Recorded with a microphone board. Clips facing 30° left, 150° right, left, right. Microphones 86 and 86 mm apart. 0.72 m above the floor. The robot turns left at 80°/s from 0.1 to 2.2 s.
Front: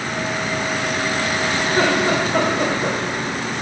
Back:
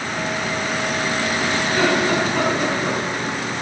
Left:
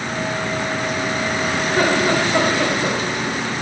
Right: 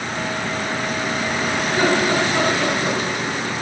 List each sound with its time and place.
1.6 s laughter: 95° left, 3 m; by 3.0 s 50° left, 3 m